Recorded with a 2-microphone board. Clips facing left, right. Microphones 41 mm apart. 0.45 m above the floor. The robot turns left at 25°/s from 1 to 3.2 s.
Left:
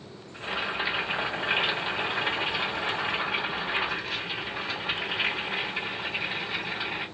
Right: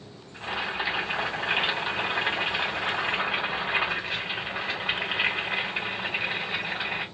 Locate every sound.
0.3 s boiling: straight ahead, 1.7 m; by 7.0 s 55° right, 1.7 m